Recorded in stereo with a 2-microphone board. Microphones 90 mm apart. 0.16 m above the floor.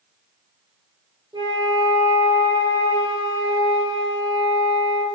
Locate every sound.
1.3 s a flute: 50° right (ahead or behind), 4 m